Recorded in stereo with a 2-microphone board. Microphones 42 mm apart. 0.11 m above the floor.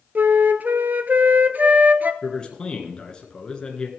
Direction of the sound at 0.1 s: 50° right (ahead or behind).